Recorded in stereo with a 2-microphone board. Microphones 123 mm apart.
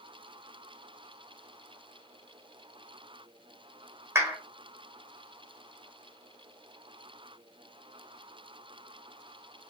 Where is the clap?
20° right (ahead or behind), 1.6 m.